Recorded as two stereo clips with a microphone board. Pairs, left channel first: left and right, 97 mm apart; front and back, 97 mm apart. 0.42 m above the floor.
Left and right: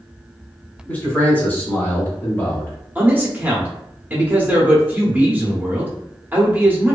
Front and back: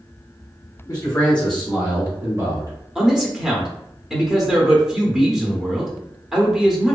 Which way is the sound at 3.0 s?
105° right.